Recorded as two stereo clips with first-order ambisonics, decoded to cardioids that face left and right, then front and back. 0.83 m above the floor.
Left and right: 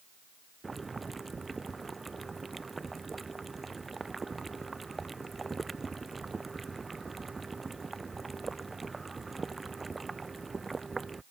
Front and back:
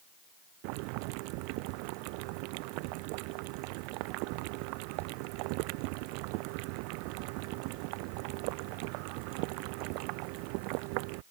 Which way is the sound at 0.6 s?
170° right.